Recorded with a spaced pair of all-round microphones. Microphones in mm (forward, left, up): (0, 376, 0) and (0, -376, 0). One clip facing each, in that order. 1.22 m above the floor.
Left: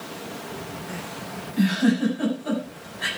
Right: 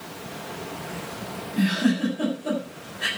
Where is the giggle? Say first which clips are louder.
Left 2 dB; 50° right (ahead or behind), 7 m.